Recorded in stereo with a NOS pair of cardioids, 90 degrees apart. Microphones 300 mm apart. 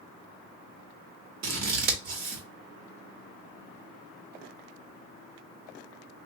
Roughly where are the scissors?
Ahead right.